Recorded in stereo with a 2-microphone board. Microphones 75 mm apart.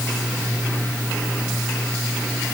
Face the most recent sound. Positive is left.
No sound to turn to.